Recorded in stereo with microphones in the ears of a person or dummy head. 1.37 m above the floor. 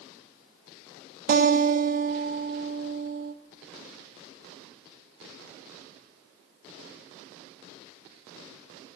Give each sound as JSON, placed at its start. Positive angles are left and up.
{"t": 1.3, "sound": "a guitar", "side_deg": -45, "distance_m": 0.6}